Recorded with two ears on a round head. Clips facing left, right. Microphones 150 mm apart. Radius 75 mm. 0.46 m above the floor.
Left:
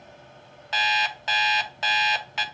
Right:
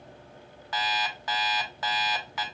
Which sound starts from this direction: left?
An alarm clock, at 0.7 s.